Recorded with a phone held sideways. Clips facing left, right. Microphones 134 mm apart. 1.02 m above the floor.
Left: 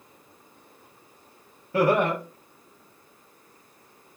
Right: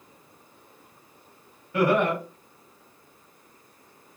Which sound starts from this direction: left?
Laughter, at 1.7 s.